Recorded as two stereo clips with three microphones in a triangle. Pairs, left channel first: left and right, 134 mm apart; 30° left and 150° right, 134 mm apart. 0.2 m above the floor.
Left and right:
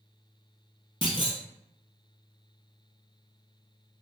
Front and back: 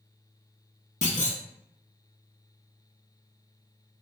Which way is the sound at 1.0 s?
50° left.